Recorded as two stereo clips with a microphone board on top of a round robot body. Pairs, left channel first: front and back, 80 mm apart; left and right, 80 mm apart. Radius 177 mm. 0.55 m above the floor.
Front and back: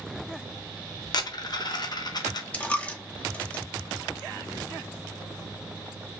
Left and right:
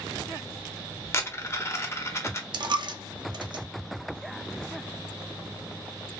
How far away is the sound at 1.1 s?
About 0.6 m.